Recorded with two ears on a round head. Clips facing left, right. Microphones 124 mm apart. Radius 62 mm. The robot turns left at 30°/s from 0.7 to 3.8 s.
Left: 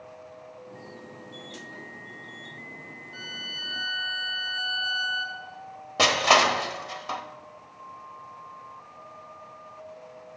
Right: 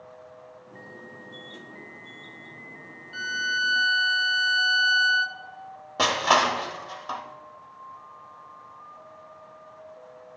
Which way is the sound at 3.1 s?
60° right (ahead or behind).